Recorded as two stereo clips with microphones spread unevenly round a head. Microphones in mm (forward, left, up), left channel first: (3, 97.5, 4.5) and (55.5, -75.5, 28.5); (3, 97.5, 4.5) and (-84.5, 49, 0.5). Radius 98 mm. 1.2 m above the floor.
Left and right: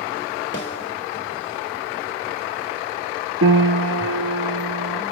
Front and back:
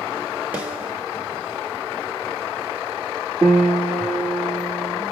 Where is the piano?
75° right, 1.1 m.